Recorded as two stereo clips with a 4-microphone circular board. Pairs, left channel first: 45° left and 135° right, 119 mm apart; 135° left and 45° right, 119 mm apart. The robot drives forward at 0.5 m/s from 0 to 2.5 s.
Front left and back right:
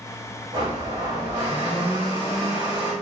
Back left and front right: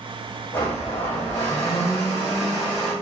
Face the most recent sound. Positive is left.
turn(degrees=180)